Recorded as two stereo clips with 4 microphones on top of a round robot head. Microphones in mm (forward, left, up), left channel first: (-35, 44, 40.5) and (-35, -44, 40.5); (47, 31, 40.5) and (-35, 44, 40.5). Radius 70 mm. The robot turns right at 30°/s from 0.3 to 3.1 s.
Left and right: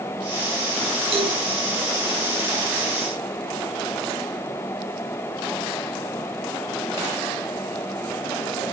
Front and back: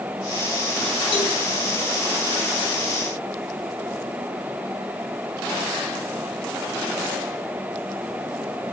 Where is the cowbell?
60° right, 6.5 m; by 1.4 s 50° right, 6.5 m.